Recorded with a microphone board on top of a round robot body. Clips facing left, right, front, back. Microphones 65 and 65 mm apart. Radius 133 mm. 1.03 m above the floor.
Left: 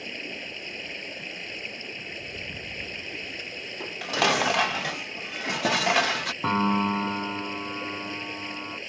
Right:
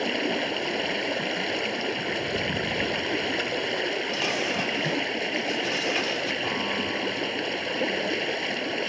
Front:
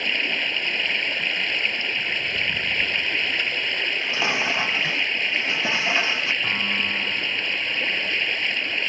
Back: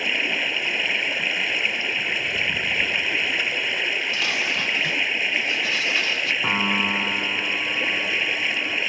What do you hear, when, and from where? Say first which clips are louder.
0.0 s running water: right 11 dB, back 1 dB; 95° right
3.8 s dishes clattering: left 1 dB, even; 70° left
6.4 s a piano: left 4 dB, back 3 dB; 120° left